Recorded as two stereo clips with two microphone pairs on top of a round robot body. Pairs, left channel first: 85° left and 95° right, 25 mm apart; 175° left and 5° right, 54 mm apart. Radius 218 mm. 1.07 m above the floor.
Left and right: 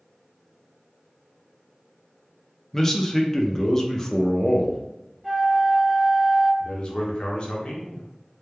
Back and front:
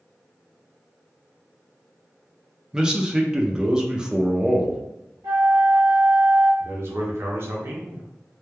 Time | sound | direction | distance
2.7 | a man speaking | 75° left | 0.7 m
5.2 | a flute | 5° right | 0.6 m
6.6 | a man speaking | 40° left | 0.6 m